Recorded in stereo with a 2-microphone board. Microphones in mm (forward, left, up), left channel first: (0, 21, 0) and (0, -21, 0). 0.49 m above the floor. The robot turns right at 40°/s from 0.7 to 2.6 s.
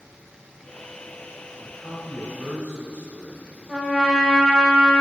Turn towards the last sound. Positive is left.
turn(degrees=5)  # may be behind; listen again after turning